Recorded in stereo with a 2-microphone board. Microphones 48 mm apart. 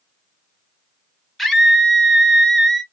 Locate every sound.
1.4 s a scream: 5° left (ahead or behind), 0.7 m